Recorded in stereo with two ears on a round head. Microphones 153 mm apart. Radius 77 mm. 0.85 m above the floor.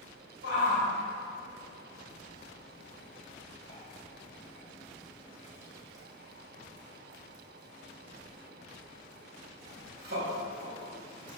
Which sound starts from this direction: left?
A shout, at 0.4 s.